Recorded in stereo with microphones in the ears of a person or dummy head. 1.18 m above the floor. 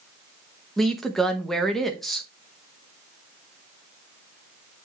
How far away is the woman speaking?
About 0.9 m.